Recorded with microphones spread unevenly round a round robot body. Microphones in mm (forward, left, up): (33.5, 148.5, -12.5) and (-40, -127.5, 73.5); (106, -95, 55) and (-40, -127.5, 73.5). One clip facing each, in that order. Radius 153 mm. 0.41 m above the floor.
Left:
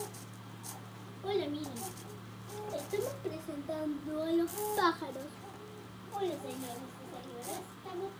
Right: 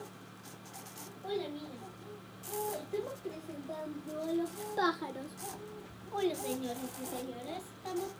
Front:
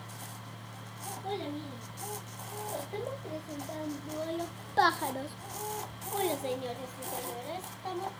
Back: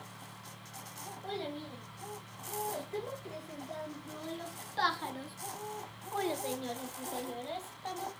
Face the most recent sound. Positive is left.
turn(degrees=-70)